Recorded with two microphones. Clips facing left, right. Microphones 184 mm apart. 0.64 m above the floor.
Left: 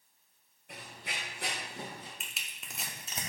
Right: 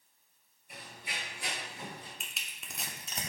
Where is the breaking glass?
I don't hear breaking glass.